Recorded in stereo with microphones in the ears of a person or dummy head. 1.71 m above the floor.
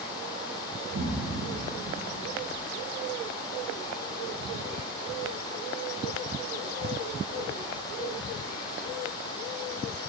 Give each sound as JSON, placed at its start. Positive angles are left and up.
{"t": 0.9, "sound": "an explosion", "side_deg": -65, "distance_m": 1.6}